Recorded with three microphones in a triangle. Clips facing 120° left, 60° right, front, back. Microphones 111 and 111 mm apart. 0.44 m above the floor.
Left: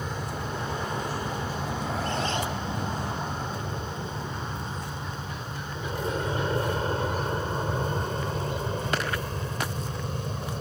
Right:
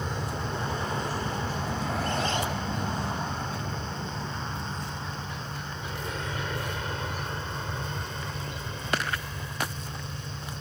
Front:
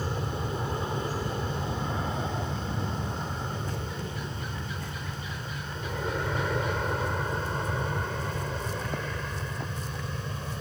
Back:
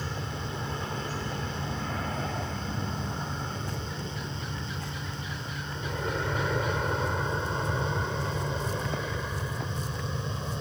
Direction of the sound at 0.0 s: 30° left.